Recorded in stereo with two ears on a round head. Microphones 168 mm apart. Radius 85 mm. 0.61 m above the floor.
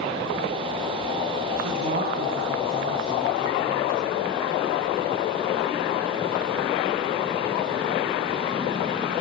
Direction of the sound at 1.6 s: 55° right (ahead or behind).